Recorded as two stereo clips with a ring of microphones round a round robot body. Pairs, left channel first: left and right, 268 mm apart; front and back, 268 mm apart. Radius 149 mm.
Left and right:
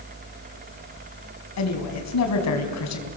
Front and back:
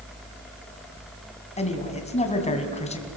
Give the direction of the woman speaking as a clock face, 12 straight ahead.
10 o'clock.